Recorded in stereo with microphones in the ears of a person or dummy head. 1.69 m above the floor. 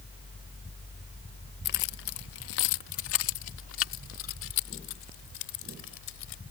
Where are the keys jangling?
45° left (ahead or behind); by 6.4 s 75° left (ahead or behind).